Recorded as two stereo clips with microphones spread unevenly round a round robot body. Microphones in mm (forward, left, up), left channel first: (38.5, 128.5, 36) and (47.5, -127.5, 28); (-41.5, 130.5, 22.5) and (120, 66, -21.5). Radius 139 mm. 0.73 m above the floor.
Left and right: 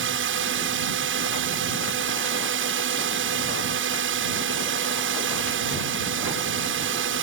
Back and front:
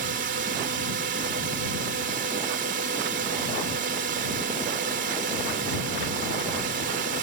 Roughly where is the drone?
Ahead right.